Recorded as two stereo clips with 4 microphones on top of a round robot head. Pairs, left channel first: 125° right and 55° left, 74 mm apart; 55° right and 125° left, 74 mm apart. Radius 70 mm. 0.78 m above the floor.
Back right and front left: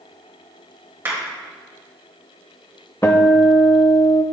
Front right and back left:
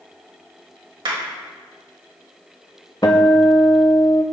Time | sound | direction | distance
1.1 | a clap | 115° left | 3.5 m
3.0 | a guitar | 85° right | 0.5 m